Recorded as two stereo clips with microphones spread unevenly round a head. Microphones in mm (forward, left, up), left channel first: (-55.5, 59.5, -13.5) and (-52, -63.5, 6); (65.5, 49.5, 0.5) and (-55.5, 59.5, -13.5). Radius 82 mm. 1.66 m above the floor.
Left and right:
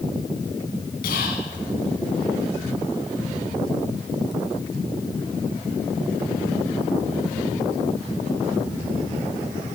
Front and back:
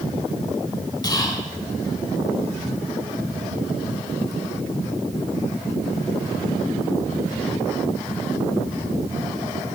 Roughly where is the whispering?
Ahead left.